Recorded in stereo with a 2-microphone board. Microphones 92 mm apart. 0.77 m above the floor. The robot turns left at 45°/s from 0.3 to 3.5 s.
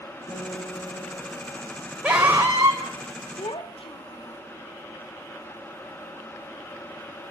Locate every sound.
0.3 s a guitar: 125° left, 7.5 m; by 1.6 s 70° left, 7.5 m
2.0 s a scream: 15° right, 2.5 m; by 2.8 s 50° right, 2.5 m
3.4 s a child speaking: 85° left, 1.4 m; by 4.4 s 90° left, 1.4 m